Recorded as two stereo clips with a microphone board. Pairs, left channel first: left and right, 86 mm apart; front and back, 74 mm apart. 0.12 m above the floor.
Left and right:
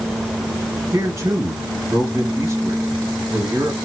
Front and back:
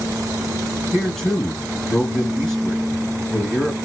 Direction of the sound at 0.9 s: 80° right.